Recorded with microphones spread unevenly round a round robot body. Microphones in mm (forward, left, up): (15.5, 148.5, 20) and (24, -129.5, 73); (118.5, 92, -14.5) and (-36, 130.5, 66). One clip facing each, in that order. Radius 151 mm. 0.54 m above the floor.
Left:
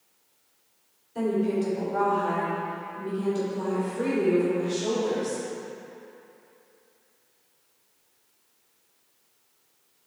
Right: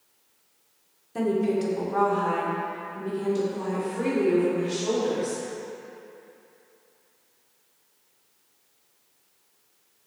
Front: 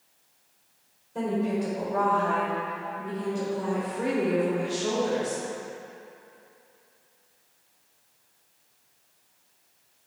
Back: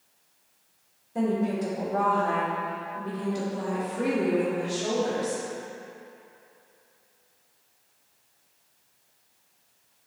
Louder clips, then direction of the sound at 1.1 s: Right 1 dB, back 1 dB; 95° right.